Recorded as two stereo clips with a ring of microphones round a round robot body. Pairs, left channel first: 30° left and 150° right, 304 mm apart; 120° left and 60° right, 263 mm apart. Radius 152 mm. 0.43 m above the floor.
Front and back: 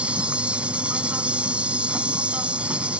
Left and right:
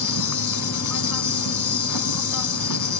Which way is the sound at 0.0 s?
125° left.